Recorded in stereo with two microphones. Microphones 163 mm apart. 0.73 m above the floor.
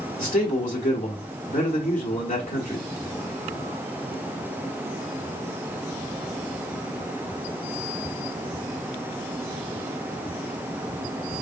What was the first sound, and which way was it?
A man speaking, 50° left (ahead or behind).